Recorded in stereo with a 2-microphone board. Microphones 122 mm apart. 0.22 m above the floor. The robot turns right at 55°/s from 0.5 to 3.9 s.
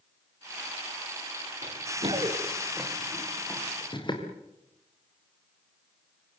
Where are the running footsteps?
70° right (ahead or behind), 5 m; by 4.2 s 40° left (ahead or behind), 5 m.